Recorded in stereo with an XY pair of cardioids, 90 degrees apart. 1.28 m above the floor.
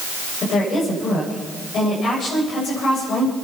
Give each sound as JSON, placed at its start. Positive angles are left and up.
{"t": 0.4, "sound": "a woman speaking", "azimuth_deg": 65, "distance_m": 7.0}